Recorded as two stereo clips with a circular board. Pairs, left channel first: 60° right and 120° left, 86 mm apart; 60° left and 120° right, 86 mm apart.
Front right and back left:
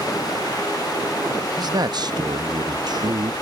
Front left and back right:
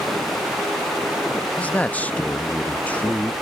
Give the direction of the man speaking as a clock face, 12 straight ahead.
8 o'clock.